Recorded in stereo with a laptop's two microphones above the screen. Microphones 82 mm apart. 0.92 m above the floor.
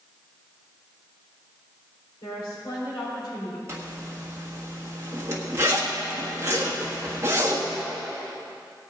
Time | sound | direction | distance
2.2 | a woman speaking | 50° left (ahead or behind) | 3.5 m
3.7 | a zipper | 35° right (ahead or behind) | 1.5 m